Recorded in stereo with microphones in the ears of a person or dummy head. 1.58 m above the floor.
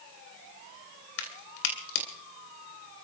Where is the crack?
75° left (ahead or behind), 3 m.